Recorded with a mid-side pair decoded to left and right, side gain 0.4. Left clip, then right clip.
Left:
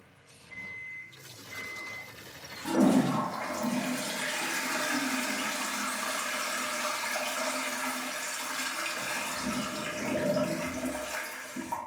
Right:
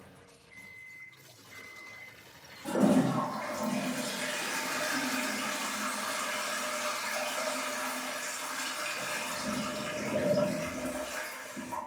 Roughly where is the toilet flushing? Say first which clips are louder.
Left 1 dB; ahead left.